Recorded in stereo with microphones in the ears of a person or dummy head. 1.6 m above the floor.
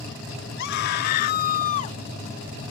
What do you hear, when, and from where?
0.6 s a scream: 65° left (ahead or behind); by 2.0 s 40° left (ahead or behind)